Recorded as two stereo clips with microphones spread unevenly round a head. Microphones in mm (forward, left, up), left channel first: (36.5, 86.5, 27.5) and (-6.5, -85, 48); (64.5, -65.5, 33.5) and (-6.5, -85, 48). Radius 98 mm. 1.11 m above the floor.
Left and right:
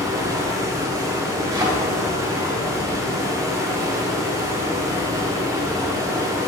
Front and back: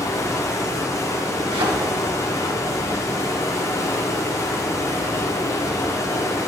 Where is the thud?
170° right, 1.2 m.